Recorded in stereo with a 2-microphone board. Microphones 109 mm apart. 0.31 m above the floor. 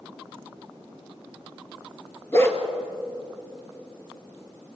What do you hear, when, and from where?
2.3 s a dog barking: 25° left (ahead or behind), 2.0 m